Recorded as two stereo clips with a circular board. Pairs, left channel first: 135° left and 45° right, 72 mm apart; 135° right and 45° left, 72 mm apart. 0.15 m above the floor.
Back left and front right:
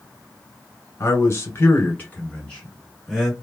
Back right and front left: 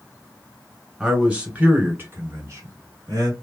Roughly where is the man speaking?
Behind left.